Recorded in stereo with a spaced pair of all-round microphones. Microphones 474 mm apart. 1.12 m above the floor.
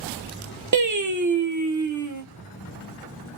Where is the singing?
40° right (ahead or behind), 0.6 m.